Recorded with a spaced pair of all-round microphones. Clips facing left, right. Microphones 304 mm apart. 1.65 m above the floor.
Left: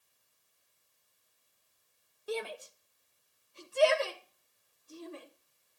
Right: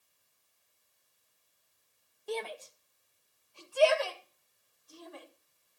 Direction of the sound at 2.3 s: 10° left (ahead or behind).